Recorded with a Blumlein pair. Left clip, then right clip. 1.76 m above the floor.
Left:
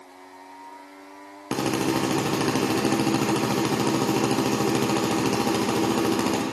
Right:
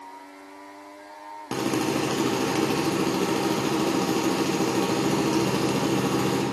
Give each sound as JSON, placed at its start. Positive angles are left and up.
{"t": 1.5, "sound": "a drill", "azimuth_deg": 15, "distance_m": 1.3}